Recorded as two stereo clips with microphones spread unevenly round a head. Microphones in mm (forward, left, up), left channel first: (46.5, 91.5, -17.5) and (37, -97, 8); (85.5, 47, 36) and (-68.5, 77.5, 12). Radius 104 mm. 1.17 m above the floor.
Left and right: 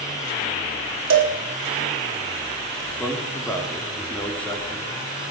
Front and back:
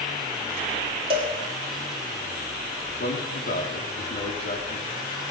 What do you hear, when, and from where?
1.1 s a cowbell: 130° right, 2 m
2.9 s a man speaking: 5° left, 3.5 m